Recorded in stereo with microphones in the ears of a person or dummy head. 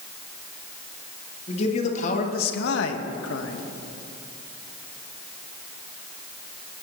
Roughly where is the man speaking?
Left.